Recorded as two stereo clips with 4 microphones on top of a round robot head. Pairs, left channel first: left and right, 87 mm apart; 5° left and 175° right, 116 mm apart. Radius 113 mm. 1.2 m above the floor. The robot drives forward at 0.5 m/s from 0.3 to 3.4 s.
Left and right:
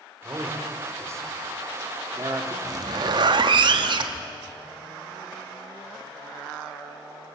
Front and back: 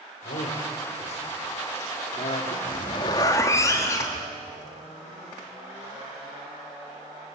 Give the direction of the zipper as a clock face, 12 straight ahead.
2 o'clock.